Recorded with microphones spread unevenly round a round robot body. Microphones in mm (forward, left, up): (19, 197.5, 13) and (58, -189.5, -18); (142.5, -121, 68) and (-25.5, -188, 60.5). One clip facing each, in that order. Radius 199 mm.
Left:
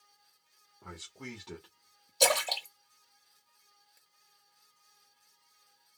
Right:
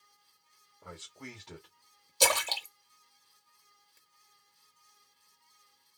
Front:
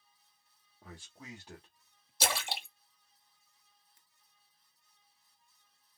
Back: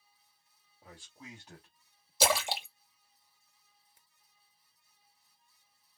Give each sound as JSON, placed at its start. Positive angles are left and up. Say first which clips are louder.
{"t": 0.8, "sound": "a man speaking", "louder": "left 1 dB, front 1 dB", "azimuth_deg": 55, "distance_m": 1.8}
{"t": 2.2, "sound": "a splash", "louder": "left 2 dB, back 7 dB", "azimuth_deg": -160, "distance_m": 0.6}